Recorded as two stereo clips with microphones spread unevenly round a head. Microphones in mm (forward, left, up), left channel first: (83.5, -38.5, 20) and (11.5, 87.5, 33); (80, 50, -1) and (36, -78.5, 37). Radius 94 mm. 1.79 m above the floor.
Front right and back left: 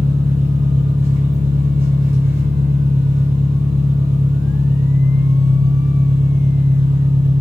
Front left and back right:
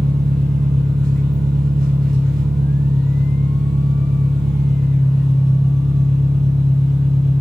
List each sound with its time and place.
0.0 s an engine running: straight behind, 0.8 m